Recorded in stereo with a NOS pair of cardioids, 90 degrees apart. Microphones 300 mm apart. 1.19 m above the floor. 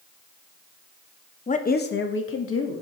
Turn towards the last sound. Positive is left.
turn(degrees=50)